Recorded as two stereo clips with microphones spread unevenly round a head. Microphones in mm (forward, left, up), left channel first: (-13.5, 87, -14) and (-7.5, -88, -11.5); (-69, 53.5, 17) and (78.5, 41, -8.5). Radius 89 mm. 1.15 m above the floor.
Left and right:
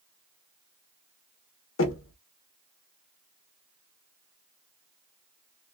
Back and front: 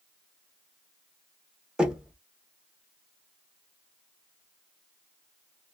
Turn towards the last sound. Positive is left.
turn(degrees=80)